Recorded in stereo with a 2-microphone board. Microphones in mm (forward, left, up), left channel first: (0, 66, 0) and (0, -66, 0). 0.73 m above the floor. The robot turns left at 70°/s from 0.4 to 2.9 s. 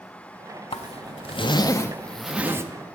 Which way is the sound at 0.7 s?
105° left.